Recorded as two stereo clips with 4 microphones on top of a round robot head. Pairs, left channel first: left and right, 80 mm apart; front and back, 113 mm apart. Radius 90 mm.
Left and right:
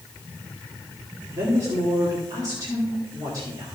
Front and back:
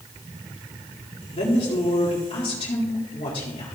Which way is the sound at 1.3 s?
40° right.